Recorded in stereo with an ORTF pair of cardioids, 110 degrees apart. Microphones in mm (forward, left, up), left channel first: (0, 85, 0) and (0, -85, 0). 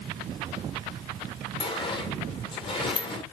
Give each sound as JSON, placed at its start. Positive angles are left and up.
{"t": 1.6, "sound": "a sliding door", "azimuth_deg": 30, "distance_m": 0.7}